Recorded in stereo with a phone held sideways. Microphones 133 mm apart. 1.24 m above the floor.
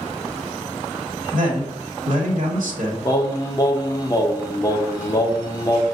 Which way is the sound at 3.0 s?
30° left (ahead or behind).